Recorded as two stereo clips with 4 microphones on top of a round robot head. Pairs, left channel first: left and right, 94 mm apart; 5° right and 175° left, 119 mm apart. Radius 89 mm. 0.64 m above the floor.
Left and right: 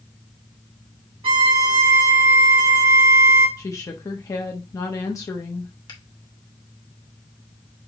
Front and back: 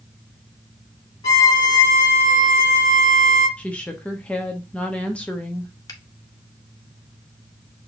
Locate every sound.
1.2 s a violin: 65° right, 2.5 m
3.6 s a woman speaking: 70° left, 1.0 m
5.9 s a finger snap: 50° left, 2.0 m